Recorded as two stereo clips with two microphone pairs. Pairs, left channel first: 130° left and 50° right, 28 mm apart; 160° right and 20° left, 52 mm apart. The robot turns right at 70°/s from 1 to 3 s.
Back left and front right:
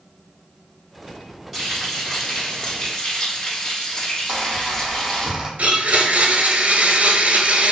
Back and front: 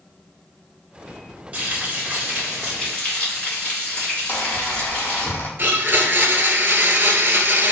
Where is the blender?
25° right, 0.5 m.